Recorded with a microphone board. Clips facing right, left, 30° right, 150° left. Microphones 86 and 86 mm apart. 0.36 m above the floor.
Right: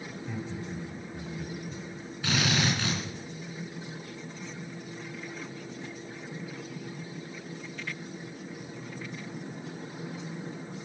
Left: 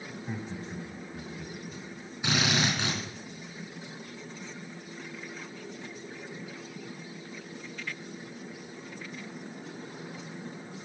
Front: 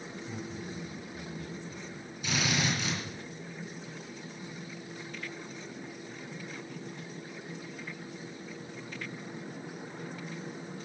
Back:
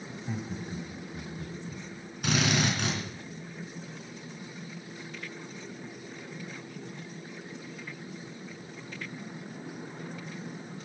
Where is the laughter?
145° left, 2.5 m; by 1.8 s 155° right, 2.5 m.